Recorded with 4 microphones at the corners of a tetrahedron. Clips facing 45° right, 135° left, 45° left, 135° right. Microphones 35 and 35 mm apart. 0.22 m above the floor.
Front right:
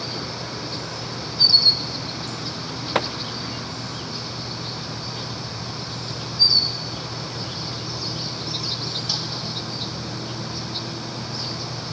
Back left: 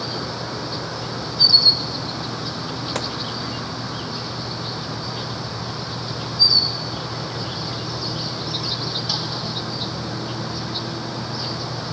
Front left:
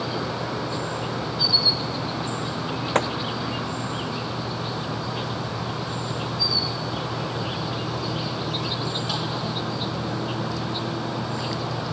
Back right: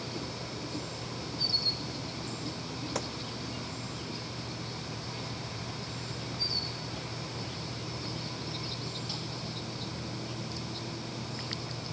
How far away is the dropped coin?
I don't hear a dropped coin.